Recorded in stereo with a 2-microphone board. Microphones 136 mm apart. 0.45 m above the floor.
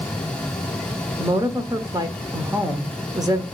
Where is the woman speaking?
25° right (ahead or behind), 0.9 m.